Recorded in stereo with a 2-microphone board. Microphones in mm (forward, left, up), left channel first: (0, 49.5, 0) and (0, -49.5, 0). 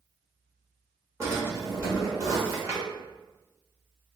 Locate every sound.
1.2 s a drawer: 30° right (ahead or behind), 1.2 m